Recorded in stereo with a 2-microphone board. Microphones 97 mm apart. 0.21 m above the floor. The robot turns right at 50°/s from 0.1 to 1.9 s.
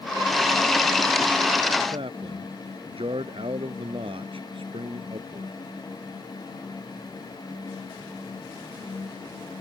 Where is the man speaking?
65° right (ahead or behind).